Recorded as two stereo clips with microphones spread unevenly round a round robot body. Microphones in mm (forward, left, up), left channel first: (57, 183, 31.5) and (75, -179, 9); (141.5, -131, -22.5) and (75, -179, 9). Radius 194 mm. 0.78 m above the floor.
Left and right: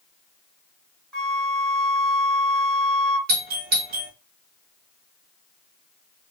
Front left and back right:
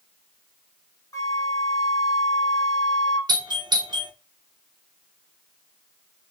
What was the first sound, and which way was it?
A flute, 5° left.